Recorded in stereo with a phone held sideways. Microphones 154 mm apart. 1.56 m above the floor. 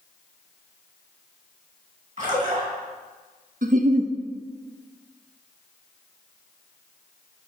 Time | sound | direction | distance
2.2 | a splash | 55° right (ahead or behind) | 2 m
3.6 | a giggle | 65° right (ahead or behind) | 0.5 m